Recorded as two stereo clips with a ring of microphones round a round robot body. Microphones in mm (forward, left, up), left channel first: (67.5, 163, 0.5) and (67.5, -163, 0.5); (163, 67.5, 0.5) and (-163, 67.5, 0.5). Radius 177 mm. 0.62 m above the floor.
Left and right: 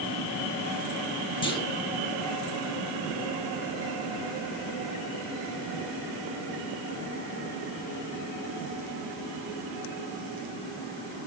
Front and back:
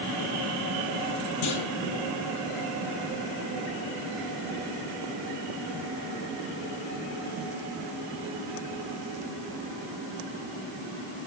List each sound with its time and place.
1.4 s a clunk: 15° left, 3.5 m